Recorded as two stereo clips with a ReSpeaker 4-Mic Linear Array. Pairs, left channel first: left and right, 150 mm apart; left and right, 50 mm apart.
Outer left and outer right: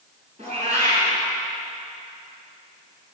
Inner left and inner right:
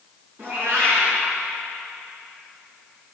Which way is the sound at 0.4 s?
50° right (ahead or behind).